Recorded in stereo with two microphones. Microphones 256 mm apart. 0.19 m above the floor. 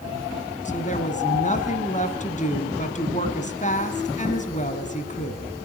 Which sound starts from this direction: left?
A woman speaking, at 0.7 s.